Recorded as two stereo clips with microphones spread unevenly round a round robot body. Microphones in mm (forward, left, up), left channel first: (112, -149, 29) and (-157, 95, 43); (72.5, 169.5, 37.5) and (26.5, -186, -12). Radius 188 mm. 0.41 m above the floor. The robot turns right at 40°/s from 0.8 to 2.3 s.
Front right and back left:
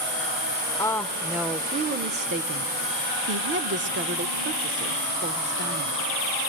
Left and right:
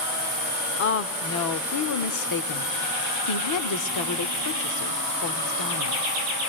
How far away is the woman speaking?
About 1.0 m.